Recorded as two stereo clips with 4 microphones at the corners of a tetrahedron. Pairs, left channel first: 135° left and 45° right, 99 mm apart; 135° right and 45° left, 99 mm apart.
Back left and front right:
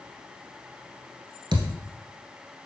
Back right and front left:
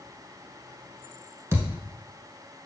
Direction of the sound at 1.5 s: 15° right.